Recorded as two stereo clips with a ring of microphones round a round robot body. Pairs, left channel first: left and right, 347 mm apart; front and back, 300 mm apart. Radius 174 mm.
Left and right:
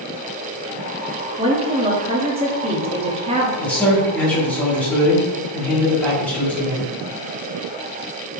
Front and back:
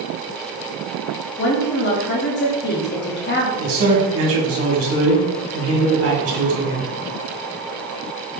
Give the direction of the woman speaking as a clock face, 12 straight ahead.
1 o'clock.